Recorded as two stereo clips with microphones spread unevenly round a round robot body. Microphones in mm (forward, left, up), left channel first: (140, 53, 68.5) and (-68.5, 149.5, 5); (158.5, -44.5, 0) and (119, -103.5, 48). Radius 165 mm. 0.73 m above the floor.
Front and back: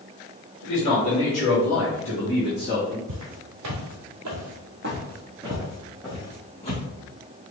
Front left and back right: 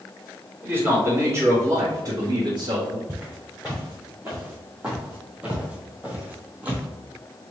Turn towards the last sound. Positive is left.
turn(degrees=-80)